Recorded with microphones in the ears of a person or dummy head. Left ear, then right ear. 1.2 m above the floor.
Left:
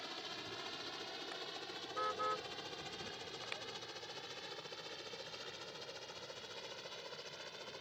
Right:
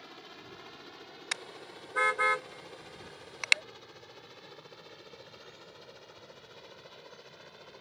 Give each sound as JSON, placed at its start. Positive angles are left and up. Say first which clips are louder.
{"t": 0.0, "sound": "a helicopter", "louder": "left 3 dB", "side_deg": 25}
{"t": 1.3, "sound": "a car horn", "louder": "right 6 dB", "side_deg": -65}